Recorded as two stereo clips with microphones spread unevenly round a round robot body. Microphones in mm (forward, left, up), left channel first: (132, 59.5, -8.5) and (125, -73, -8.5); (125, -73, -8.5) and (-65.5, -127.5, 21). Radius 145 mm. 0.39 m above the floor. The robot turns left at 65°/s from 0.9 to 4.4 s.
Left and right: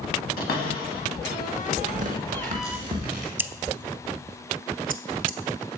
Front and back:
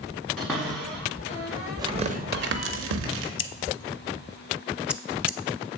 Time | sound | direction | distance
0.4 | a cupboard door | 105° left | 0.7 m
1.8 | tearing paper | 90° right | 0.7 m
3.4 | scissors | 15° right | 0.5 m